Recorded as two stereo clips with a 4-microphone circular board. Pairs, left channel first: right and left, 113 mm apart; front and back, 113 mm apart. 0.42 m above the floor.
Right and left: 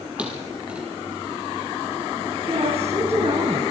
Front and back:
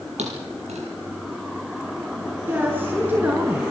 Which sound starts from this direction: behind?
A thud, at 0.2 s.